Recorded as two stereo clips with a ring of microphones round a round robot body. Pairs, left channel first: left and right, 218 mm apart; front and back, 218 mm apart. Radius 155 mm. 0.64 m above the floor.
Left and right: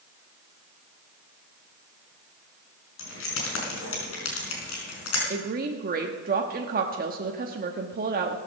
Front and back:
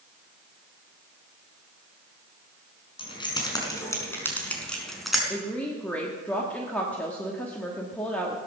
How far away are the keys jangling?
About 4.5 m.